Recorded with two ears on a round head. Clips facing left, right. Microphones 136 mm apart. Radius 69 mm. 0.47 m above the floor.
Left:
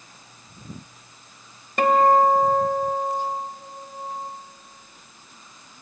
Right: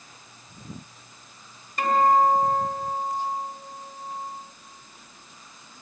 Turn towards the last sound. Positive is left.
turn(degrees=50)  # may be behind; listen again after turning